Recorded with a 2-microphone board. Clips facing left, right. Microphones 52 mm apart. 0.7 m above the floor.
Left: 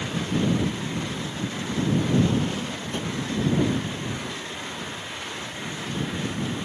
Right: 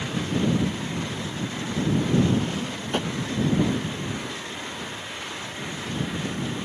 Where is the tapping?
70° right (ahead or behind).